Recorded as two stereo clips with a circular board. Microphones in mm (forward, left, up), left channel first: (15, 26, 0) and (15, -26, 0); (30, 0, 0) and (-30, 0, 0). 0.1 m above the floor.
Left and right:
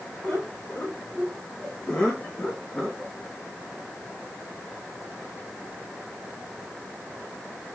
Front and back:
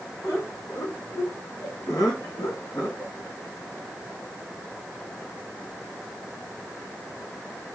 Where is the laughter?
20° left, 5.5 m; by 3.1 s 25° left, 4 m.